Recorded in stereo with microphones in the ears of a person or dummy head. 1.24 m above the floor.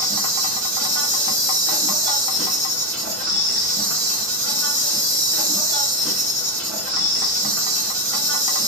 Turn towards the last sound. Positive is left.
turn(degrees=-45)  # may be behind; listen again after turning